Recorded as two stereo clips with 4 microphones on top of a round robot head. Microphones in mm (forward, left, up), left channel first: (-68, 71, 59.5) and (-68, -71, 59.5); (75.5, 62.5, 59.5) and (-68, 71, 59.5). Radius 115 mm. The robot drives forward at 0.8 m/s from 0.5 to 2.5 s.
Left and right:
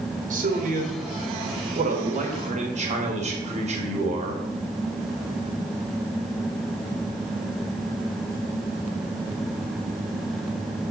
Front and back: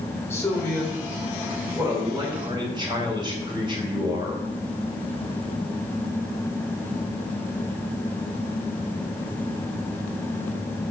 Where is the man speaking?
75° right, 2 m; by 4.4 s 125° right, 2.5 m.